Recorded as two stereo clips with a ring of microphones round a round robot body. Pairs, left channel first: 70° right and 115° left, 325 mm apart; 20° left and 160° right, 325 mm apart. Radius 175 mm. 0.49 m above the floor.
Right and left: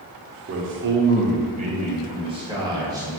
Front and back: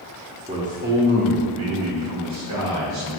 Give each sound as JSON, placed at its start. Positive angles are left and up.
{"t": 0.5, "sound": "a man speaking", "azimuth_deg": 140, "distance_m": 1.4}